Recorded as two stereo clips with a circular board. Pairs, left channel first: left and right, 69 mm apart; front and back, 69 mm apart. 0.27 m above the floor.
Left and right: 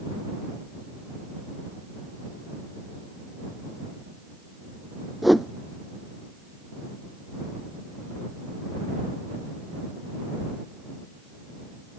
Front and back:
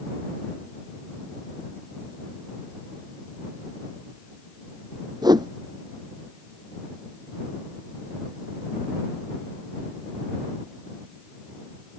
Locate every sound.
5.2 s a whoosh: straight behind